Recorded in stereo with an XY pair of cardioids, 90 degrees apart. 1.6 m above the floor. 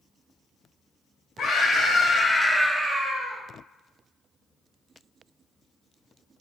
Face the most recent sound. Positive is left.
turn(degrees=-60)